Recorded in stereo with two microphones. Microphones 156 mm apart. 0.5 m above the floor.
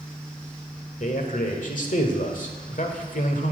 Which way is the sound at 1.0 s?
55° left (ahead or behind).